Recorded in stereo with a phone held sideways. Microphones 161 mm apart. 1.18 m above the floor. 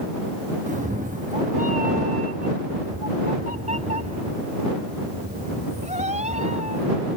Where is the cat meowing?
50° right (ahead or behind); by 7.0 s 45° right (ahead or behind).